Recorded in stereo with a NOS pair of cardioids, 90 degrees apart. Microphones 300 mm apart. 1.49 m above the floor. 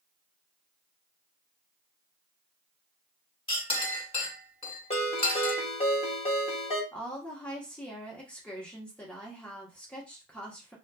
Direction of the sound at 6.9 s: 5° left.